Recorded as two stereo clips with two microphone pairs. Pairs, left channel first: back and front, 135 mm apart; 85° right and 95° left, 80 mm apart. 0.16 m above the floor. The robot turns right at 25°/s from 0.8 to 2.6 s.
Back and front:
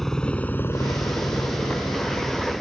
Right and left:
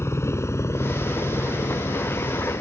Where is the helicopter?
95° right; by 2.6 s 90° right.